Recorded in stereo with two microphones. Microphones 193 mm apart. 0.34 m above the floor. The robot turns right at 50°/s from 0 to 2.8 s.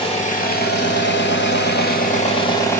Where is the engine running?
30° left, 0.9 m; by 2.8 s 170° left, 0.9 m.